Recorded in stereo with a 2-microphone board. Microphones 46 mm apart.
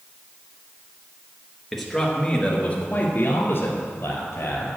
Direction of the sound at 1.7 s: 5° right (ahead or behind).